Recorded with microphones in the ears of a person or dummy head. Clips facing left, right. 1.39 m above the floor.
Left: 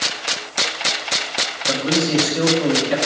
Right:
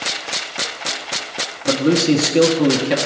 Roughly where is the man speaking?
Right.